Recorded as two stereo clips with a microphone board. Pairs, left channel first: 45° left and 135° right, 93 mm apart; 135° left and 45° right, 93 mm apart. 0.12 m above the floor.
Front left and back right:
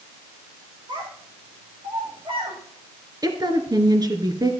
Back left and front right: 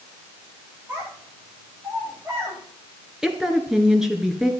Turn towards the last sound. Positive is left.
turn(degrees=-130)